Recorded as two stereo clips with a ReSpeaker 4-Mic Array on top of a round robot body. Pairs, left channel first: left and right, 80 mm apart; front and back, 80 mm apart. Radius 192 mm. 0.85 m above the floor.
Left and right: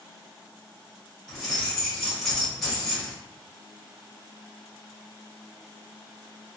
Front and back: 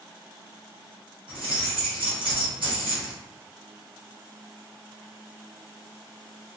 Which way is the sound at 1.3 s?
175° left.